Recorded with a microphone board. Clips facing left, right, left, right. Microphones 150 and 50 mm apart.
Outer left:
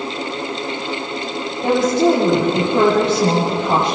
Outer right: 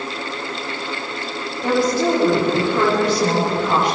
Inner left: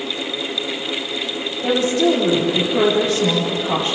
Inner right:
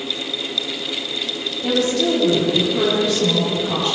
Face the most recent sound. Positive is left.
turn(degrees=30)  # may be behind; listen again after turning